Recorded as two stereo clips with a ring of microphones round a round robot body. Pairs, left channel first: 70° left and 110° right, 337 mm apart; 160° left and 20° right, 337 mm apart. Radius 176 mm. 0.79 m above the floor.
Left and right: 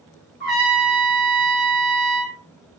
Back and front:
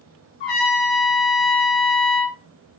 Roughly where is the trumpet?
Behind.